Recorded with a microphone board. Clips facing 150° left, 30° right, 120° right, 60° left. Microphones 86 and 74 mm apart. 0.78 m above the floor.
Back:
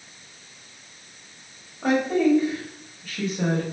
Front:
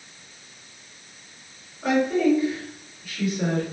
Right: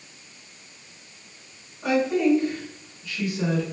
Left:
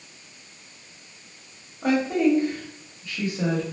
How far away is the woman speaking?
About 1.3 m.